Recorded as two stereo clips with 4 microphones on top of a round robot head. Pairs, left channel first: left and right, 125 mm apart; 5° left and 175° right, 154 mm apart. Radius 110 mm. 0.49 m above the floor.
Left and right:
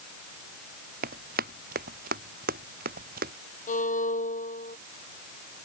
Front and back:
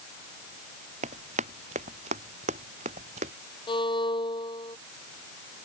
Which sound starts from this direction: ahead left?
A violin, at 3.7 s.